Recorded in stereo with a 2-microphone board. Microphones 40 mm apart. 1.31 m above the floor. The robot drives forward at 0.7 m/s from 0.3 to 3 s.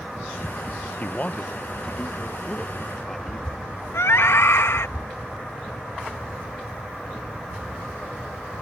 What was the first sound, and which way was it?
A man speaking, 45° left (ahead or behind).